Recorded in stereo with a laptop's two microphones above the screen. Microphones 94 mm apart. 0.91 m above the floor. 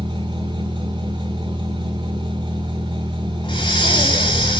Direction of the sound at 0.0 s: 55° right (ahead or behind).